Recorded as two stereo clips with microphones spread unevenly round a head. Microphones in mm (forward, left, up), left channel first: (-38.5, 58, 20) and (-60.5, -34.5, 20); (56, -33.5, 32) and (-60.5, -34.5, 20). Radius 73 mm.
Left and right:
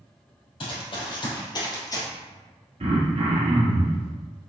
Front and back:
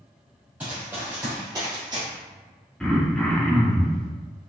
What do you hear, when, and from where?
0.6 s running footsteps: 95° left, 3 m; by 2.1 s 120° left, 2 m
2.8 s throat clearing: 80° right, 1.2 m